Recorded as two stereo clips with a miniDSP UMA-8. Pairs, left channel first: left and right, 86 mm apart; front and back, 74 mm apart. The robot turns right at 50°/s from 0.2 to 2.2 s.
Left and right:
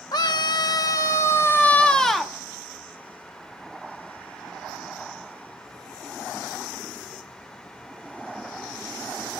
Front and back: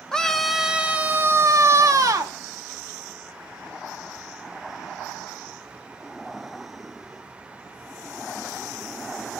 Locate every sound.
0.1 s a scream: 80° left, 1.5 m; by 2.3 s straight behind, 1.5 m